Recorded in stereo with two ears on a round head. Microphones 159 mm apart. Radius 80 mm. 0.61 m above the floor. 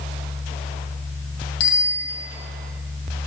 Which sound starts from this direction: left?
A bicycle bell, at 1.6 s.